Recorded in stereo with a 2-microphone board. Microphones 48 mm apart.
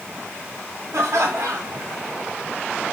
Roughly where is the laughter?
Right.